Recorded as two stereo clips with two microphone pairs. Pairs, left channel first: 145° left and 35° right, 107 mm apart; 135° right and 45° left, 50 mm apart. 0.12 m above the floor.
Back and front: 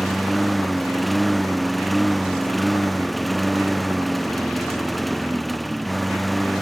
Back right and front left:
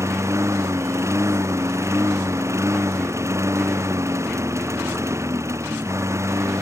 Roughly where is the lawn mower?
Ahead left.